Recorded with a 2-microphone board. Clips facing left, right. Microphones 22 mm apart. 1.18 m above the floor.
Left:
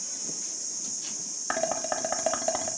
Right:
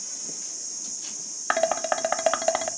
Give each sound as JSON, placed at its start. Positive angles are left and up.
{"t": 1.5, "sound": "dishes clattering", "side_deg": -30, "distance_m": 1.0}